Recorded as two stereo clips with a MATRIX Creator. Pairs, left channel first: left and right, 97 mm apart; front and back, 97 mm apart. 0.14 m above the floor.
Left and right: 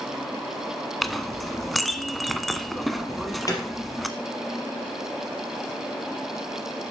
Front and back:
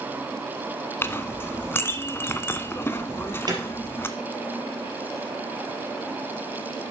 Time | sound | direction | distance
1.0 | a clink | straight ahead | 0.7 m
3.1 | an alarm | 140° left | 3 m